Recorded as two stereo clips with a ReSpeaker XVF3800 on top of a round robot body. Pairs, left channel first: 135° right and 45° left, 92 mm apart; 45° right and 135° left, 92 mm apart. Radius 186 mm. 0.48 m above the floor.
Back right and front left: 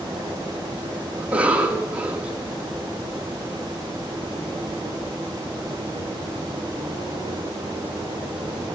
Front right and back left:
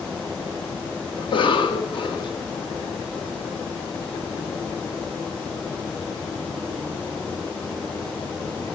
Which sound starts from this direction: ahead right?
A cough, at 1.2 s.